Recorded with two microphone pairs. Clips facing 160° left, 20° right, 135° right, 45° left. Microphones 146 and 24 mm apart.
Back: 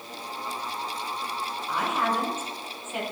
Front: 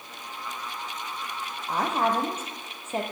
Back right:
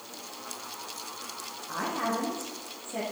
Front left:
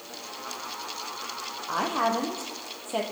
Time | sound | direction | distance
1.7 | a woman speaking | 30° left | 4 m